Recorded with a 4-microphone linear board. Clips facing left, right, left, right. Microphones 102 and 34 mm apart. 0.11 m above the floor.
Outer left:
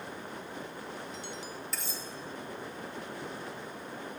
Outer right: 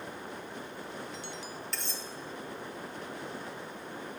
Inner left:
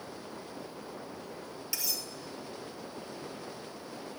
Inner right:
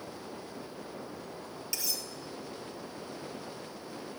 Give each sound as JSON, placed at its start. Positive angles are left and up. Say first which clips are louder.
{"t": 1.7, "sound": "cutlery clinking", "louder": "even, even", "side_deg": 5, "distance_m": 1.3}